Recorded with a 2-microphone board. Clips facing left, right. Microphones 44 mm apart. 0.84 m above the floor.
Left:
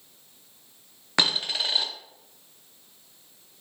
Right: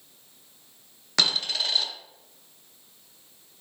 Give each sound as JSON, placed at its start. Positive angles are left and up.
{"t": 1.2, "sound": "a dropped coin", "side_deg": 20, "distance_m": 0.5}